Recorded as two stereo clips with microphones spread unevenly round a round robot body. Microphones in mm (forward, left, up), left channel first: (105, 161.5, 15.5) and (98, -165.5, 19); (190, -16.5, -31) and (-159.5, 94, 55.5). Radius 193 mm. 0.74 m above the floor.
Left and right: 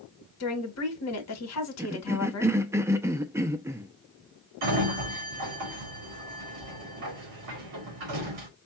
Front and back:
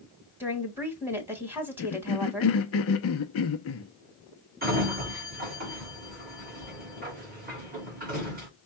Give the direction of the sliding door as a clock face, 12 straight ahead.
4 o'clock.